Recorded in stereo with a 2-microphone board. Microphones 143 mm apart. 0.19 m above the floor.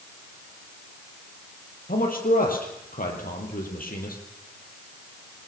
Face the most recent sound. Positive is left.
turn(degrees=70)  # may be behind; listen again after turning